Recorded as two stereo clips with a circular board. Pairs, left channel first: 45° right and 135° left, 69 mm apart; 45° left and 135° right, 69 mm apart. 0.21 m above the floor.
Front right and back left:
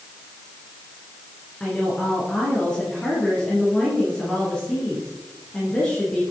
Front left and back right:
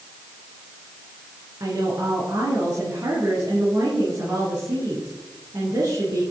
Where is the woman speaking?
120° right, 2.5 m.